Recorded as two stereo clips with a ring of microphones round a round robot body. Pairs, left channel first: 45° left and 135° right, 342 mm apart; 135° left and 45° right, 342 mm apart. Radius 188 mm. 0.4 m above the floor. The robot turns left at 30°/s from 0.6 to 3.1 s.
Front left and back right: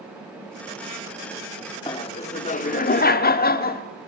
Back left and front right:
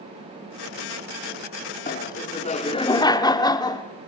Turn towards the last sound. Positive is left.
turn(degrees=70)